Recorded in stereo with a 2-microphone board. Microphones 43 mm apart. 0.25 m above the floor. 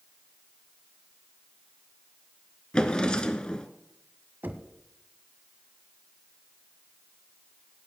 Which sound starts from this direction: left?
A drawer, at 2.7 s.